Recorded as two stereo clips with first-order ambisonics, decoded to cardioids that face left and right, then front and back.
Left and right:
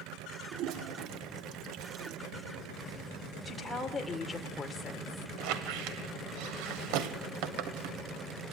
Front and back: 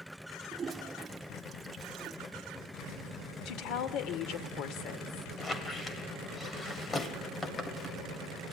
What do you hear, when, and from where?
0.5 s a toilet flushing: 110° right, 1.0 m
3.5 s a woman speaking: 10° left, 2.0 m
5.4 s a squeak: 75° right, 1.6 m